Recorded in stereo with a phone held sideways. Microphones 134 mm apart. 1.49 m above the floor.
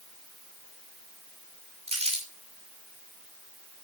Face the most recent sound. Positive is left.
turn(degrees=-50)  # may be behind; listen again after turning